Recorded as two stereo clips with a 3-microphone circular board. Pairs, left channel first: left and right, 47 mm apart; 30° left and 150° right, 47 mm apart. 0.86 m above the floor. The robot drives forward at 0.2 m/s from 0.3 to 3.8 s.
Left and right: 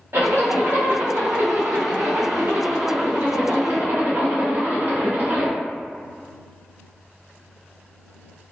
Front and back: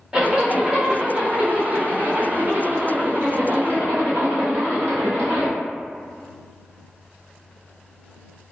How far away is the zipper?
About 0.8 m.